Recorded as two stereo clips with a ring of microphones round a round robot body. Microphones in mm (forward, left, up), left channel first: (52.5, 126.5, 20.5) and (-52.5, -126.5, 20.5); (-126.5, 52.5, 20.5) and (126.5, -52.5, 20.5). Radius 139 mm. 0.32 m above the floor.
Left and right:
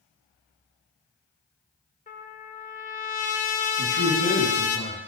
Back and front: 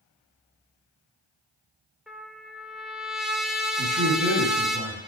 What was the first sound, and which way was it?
A trumpet, 65° left.